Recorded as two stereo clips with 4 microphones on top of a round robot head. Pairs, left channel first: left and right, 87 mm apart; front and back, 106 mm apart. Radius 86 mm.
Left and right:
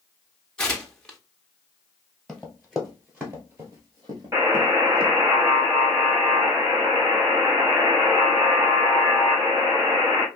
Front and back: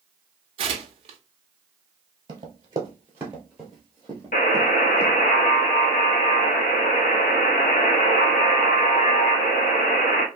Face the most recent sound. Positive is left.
turn(degrees=-15)